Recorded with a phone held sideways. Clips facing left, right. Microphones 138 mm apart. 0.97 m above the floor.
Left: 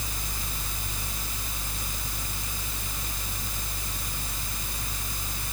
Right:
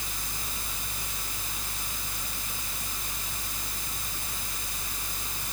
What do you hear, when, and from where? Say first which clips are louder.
0.0 s a fan: left 2 dB; 35° left (ahead or behind)